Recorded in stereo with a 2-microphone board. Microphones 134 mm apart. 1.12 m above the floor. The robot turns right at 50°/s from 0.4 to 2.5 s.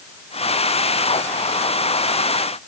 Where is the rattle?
I don't hear a rattle.